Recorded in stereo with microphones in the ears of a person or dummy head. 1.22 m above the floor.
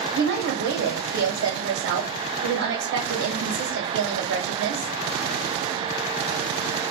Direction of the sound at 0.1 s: 75° right (ahead or behind).